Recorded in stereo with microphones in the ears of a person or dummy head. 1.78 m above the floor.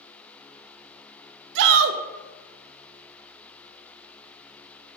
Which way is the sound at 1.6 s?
65° right (ahead or behind).